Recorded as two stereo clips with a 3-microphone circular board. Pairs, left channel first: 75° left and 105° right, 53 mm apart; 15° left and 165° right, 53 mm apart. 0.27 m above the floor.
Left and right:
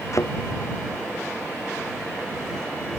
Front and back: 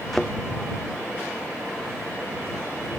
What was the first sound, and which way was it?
A thud, 100° left.